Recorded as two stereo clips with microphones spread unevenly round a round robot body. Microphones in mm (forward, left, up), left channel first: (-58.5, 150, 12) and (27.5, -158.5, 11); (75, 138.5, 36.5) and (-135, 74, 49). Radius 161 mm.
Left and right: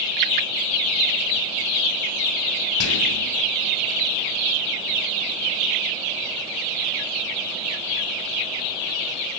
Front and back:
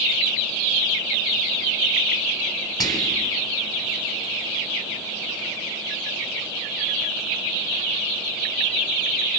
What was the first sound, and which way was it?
Whispering, 90° left.